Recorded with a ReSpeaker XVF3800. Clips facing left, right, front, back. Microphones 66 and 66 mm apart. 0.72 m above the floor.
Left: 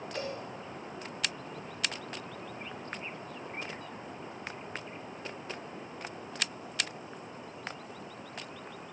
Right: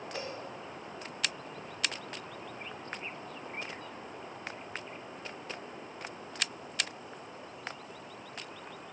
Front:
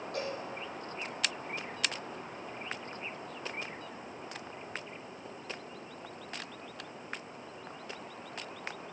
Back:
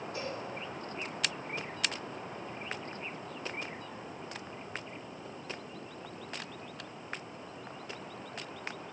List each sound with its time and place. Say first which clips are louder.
0.1 s a cowbell: left 3 dB, front 3 dB; 20° right, 8 m